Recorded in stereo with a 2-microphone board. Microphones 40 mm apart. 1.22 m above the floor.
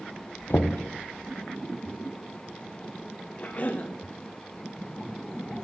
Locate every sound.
0.5 s knocking: 60° left (ahead or behind), 0.6 m
3.4 s a cough: 40° left (ahead or behind), 1.3 m